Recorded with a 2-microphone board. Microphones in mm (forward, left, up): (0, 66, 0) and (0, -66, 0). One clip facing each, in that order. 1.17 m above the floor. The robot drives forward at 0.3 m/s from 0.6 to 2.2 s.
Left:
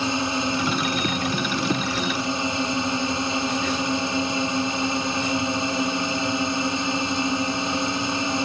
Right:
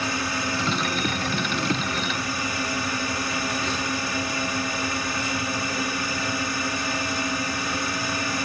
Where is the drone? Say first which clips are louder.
Left 4 dB; 20° left (ahead or behind); by 8.4 s 25° left (ahead or behind).